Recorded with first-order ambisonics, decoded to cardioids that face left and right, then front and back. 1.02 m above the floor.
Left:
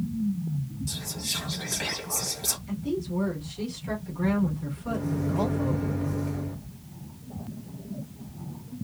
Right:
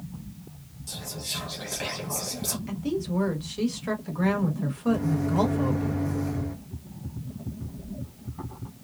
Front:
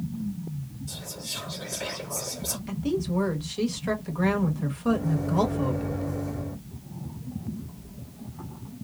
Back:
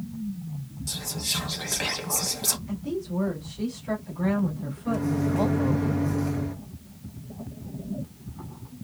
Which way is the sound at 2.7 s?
40° right.